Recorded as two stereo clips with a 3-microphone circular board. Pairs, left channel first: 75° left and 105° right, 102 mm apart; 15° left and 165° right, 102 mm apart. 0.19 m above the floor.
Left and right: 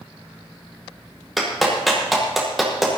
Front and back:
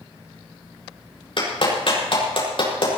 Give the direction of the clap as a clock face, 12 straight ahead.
12 o'clock.